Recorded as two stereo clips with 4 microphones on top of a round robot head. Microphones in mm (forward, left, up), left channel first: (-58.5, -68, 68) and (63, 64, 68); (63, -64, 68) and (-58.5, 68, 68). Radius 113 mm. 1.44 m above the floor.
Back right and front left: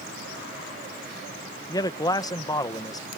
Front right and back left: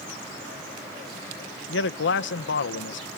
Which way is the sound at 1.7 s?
60° right.